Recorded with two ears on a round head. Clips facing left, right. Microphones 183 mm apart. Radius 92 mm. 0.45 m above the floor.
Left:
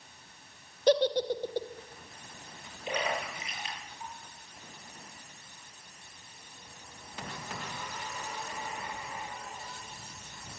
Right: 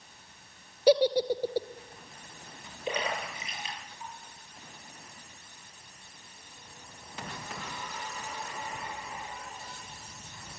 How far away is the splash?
About 8 m.